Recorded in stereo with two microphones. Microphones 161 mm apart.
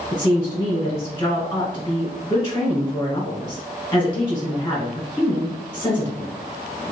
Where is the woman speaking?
20° left (ahead or behind), 1.2 m.